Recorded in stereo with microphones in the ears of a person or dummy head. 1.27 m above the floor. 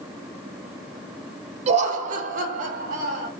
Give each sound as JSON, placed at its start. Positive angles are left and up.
{"t": 1.7, "sound": "laughter", "side_deg": -40, "distance_m": 0.7}